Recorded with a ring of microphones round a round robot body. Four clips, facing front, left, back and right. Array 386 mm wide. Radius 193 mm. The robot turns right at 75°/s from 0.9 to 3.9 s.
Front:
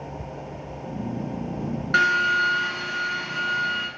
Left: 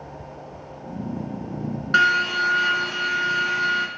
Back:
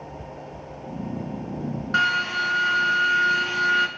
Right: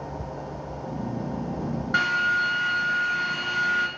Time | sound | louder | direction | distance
1.9 | a drill | left 4 dB, front 3 dB | 40° left | 3.5 m